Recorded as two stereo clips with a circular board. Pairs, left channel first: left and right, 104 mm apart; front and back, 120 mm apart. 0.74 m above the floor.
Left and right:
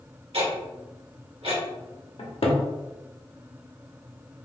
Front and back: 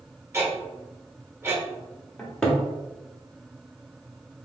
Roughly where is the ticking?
Right.